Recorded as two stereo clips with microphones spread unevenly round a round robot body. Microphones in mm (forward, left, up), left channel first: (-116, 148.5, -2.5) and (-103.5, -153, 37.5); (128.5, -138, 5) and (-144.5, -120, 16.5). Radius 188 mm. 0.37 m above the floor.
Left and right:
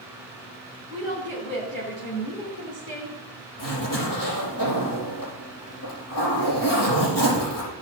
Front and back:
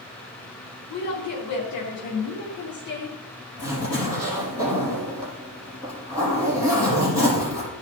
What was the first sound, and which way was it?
A woman speaking, 5° left.